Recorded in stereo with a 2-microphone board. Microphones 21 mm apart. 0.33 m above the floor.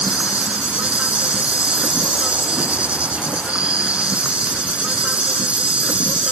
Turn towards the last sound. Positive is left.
turn(degrees=-70)  # may be behind; listen again after turning